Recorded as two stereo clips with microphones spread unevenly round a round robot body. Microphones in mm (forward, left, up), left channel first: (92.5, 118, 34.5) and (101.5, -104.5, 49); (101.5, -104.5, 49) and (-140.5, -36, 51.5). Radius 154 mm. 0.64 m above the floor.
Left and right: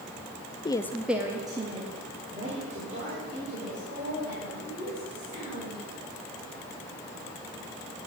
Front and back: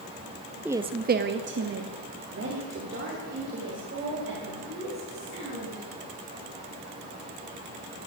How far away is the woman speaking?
About 0.5 m.